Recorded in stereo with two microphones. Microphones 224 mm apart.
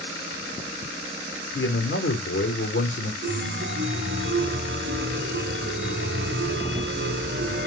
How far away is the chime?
About 0.8 m.